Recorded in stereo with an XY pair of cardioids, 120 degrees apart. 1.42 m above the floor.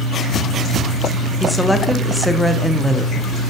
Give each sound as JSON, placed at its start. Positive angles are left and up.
{"t": 1.4, "sound": "a woman speaking", "azimuth_deg": 5, "distance_m": 0.8}